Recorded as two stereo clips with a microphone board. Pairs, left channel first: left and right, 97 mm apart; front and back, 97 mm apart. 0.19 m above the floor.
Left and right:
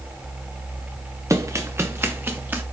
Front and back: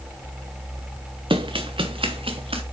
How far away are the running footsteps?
About 1.4 m.